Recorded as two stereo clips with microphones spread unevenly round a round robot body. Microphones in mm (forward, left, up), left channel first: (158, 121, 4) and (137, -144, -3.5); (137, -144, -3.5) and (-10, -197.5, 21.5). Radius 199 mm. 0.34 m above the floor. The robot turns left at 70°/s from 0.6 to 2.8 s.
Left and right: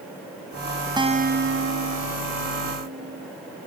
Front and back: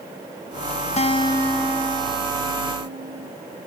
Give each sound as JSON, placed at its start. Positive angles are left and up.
{"t": 1.0, "sound": "a guitar", "azimuth_deg": -20}